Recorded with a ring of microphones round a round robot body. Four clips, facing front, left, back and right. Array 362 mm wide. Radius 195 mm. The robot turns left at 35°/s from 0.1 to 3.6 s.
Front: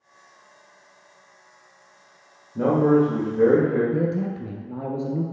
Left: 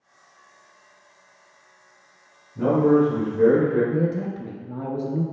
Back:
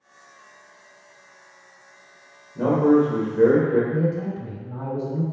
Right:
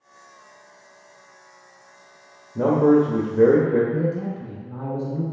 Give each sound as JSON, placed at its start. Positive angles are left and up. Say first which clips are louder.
{"t": 2.5, "sound": "a man speaking", "louder": "right 1 dB, back 1 dB", "azimuth_deg": -70, "distance_m": 1.1}
{"t": 3.9, "sound": "a man speaking", "louder": "even, even", "azimuth_deg": 40, "distance_m": 0.7}